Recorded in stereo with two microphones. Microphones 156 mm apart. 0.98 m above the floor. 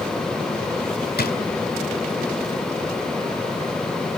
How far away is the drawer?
About 3 m.